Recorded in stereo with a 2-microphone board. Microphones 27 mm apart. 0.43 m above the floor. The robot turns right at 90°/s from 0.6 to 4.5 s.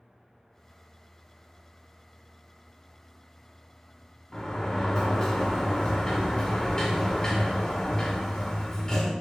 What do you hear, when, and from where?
4.3 s a sliding door: 30° left (ahead or behind), 1.6 m; by 9.1 s 25° left (ahead or behind), 1.6 m